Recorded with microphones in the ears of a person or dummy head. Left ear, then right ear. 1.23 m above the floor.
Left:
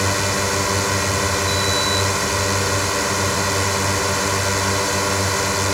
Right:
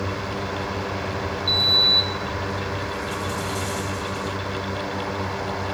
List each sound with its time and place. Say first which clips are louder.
0.0 s a drone: left 8 dB; 65° left (ahead or behind)
1.5 s a sliding door: right 2 dB; 60° right (ahead or behind)